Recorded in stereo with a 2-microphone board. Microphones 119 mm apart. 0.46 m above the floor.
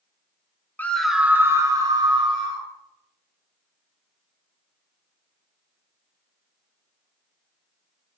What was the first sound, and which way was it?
A scream, 15° left (ahead or behind).